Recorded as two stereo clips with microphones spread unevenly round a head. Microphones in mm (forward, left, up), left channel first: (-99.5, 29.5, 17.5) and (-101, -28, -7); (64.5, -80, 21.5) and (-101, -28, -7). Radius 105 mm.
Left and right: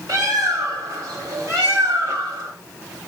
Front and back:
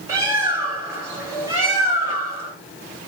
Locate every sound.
0.1 s a bird: 120° right, 1.7 m